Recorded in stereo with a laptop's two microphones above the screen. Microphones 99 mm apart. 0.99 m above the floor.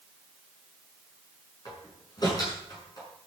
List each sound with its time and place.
1.6 s a door slam: 40° left (ahead or behind), 6.5 m